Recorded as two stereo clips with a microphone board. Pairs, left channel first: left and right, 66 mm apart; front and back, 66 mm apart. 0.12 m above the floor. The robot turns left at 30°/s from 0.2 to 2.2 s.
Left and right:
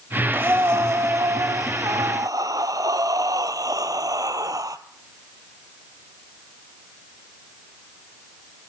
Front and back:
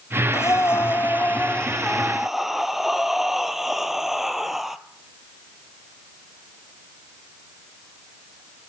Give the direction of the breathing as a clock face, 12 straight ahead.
1 o'clock.